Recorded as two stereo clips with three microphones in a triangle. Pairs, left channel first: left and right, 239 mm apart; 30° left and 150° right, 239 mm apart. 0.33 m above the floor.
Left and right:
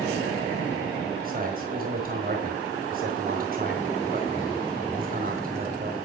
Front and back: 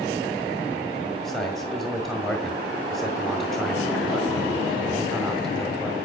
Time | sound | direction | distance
1.2 | a man speaking | 60° right | 1.8 m